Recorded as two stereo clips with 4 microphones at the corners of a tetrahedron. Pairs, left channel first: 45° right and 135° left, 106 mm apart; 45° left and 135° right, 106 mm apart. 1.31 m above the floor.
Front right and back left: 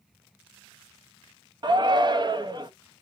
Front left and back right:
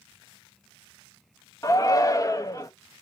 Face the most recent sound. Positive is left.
turn(degrees=100)